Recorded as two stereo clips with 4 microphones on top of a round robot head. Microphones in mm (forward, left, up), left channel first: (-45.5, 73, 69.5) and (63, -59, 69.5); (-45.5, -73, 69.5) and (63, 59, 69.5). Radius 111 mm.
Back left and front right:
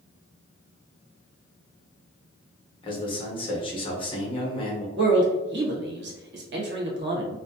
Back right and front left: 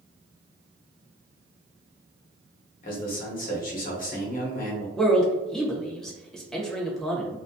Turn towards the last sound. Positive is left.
turn(degrees=-40)